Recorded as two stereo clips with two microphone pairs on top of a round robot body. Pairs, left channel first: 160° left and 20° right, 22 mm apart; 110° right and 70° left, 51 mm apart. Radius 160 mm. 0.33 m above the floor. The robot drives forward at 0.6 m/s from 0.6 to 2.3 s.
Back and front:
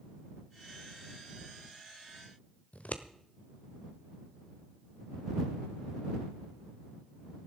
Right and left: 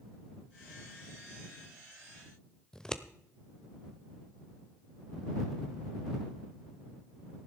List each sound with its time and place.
2.7 s scissors: 170° left, 1.1 m